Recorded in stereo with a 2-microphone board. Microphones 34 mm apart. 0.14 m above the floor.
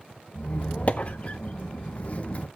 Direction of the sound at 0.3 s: 40° left (ahead or behind).